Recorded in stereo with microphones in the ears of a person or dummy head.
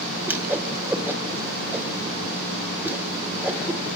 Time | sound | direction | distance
0.3 | a whoosh | 10° right (ahead or behind) | 1.6 m